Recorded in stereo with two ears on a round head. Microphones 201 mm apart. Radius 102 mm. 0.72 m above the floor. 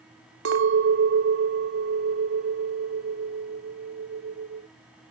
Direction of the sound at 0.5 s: 55° right (ahead or behind).